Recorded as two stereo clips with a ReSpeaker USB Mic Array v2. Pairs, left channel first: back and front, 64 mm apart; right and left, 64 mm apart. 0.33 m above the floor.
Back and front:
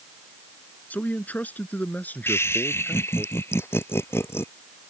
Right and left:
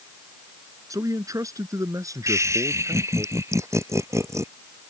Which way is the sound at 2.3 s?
130° left.